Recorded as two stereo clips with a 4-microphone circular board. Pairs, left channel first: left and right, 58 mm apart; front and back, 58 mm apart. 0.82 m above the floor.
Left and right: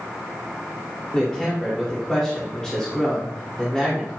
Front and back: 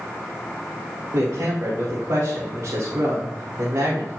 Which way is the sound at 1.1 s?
170° left.